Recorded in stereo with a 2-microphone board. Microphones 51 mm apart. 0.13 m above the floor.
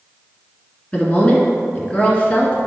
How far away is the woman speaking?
About 1.7 m.